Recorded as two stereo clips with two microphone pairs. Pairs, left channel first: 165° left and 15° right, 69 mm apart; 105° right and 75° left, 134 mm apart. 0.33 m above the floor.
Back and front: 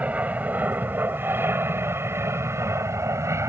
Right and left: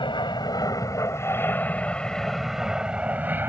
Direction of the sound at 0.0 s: 75° right.